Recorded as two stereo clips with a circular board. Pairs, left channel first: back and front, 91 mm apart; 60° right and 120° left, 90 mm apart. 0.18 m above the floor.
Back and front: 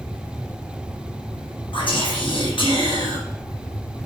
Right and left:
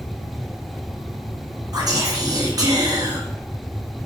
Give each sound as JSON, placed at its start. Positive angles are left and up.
{"t": 1.7, "sound": "whispering", "azimuth_deg": 160, "distance_m": 3.5}